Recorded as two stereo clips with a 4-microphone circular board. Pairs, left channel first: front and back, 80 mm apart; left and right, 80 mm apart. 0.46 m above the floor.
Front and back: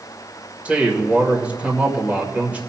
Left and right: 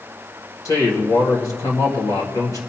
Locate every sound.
0.7 s a man speaking: 110° left, 1.8 m